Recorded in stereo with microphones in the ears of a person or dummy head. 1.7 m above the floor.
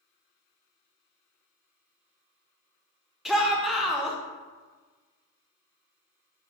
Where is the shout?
Centre (ahead or behind), 0.5 m.